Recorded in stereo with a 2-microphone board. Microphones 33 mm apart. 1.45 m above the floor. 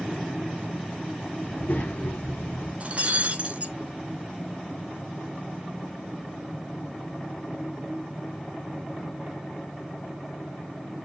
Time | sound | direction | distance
1.4 | a child speaking | 60° left (ahead or behind) | 2.5 m
2.8 | breaking glass | 45° right (ahead or behind) | 2.5 m